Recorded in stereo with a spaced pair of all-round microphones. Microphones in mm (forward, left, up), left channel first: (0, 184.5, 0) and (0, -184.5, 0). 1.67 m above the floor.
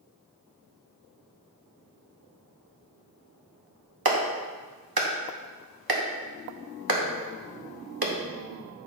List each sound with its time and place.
4.0 s a clap: 75° right (ahead or behind), 1.1 m